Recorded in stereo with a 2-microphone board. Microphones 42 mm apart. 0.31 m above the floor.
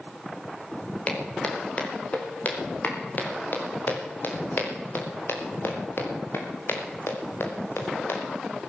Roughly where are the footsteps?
Left.